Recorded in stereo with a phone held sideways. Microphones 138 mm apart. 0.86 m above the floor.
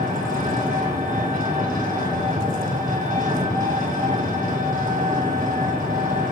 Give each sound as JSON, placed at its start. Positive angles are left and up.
{"t": 0.0, "sound": "an engine running", "side_deg": -80, "distance_m": 2.5}